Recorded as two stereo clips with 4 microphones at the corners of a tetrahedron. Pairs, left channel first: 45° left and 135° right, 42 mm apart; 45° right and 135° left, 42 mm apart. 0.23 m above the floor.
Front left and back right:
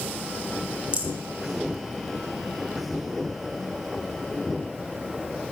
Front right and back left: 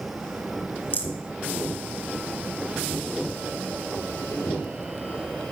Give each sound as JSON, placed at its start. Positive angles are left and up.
{"t": 0.9, "sound": "a rattle", "azimuth_deg": -85, "distance_m": 1.2}